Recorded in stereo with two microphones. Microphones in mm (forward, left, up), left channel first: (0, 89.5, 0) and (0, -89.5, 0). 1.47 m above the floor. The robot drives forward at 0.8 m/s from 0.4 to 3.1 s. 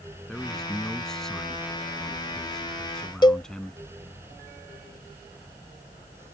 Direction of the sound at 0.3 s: 5° left (ahead or behind).